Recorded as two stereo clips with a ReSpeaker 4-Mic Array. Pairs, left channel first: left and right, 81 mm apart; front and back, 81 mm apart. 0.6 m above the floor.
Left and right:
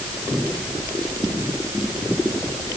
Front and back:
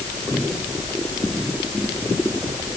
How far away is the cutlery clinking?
I don't hear cutlery clinking.